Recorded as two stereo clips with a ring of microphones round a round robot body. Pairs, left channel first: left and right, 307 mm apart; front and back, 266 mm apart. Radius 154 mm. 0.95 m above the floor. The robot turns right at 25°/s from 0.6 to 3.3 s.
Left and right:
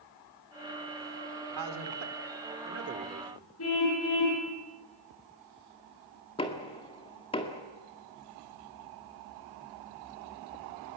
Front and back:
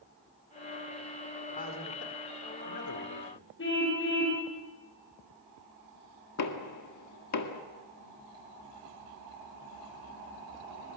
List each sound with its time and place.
1.5 s a man speaking: 70° right, 2.5 m; by 3.5 s 25° right, 2.5 m
3.6 s a car horn: 45° left, 9 m
6.4 s knocking: 15° left, 2.0 m